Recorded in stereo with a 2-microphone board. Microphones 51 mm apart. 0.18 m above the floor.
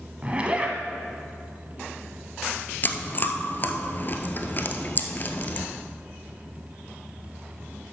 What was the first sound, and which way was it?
A zipper, 25° right (ahead or behind).